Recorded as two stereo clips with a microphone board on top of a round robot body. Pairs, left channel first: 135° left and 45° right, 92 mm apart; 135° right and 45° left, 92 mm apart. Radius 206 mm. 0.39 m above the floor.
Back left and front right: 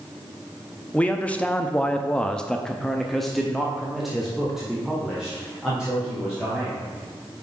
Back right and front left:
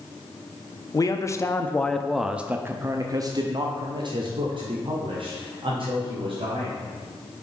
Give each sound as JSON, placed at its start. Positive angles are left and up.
{"t": 0.9, "sound": "a man speaking", "azimuth_deg": -155, "distance_m": 1.0}